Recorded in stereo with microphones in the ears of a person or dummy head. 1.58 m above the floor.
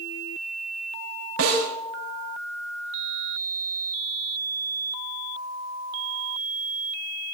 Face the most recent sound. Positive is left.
turn(degrees=-75)  # may be behind; listen again after turning